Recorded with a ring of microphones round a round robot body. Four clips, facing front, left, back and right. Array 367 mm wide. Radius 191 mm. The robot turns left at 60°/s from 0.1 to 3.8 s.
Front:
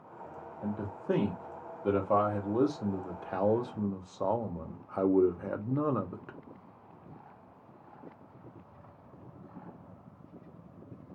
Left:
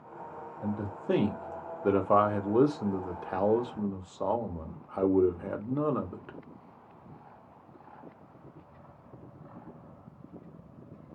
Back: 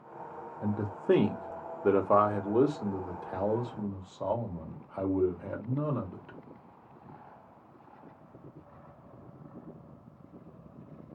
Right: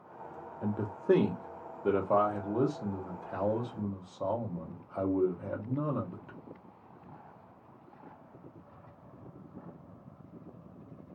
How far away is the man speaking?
About 0.7 m.